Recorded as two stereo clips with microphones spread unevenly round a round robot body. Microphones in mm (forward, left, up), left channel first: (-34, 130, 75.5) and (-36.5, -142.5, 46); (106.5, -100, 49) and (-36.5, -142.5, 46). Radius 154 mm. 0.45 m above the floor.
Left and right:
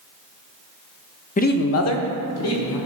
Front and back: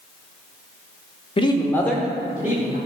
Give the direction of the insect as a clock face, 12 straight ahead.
I don't hear an insect.